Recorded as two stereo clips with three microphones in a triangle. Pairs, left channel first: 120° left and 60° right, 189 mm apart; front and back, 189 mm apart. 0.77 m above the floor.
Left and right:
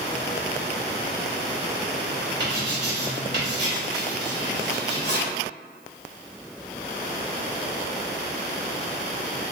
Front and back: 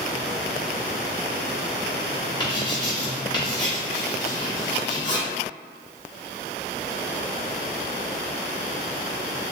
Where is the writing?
65° right, 1.5 m.